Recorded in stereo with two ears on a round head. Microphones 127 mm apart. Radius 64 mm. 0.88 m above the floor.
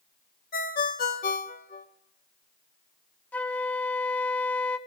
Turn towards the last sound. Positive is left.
turn(degrees=10)  # may be behind; listen again after turning